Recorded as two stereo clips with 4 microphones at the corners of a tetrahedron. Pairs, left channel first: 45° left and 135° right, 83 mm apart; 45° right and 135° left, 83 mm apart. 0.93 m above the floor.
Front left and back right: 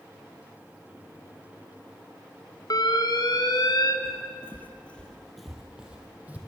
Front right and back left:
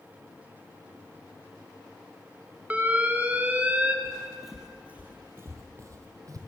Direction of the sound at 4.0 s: 30° left.